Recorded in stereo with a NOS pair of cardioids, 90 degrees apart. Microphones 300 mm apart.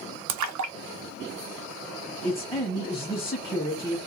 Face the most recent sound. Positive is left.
turn(degrees=10)